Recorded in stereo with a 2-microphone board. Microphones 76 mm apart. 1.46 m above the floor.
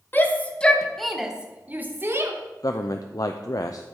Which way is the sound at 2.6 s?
55° left (ahead or behind).